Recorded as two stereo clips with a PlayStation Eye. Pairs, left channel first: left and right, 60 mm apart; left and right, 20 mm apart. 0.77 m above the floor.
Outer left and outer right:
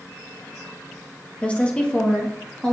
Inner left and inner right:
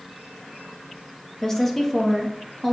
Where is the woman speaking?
20° left (ahead or behind), 0.9 m; by 2.7 s 15° left (ahead or behind), 1.4 m.